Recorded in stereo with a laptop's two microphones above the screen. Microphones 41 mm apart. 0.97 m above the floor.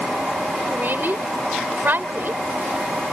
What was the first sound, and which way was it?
A woman speaking, 55° right (ahead or behind).